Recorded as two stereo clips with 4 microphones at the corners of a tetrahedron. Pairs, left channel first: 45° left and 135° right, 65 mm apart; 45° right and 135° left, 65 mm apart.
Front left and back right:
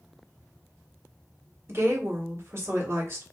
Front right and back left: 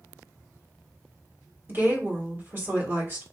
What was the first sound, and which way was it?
A woman speaking, 175° right.